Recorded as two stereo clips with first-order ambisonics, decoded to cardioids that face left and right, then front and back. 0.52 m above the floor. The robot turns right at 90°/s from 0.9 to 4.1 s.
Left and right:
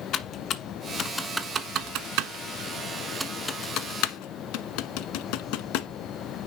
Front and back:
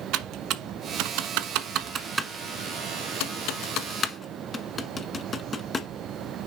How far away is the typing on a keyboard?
About 1.1 m.